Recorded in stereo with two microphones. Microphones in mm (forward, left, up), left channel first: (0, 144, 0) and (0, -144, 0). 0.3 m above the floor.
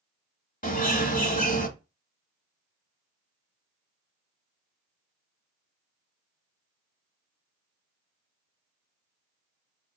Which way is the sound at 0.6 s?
30° left (ahead or behind).